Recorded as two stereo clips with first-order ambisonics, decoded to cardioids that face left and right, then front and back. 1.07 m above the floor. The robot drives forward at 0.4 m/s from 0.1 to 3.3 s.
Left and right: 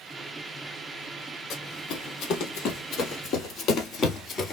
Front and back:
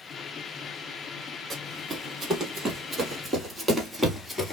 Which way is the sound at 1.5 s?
115° left.